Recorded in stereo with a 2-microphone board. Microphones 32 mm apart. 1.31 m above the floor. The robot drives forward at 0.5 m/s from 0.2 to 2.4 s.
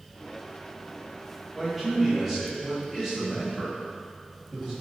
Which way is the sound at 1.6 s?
10° right (ahead or behind).